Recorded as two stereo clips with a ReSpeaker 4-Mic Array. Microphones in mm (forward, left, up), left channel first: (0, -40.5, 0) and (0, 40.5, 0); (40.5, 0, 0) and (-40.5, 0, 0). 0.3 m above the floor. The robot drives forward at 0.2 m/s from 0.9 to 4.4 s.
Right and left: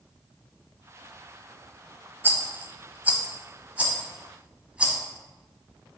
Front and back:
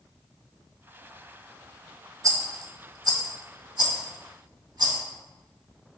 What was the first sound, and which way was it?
A rattle, 145° left.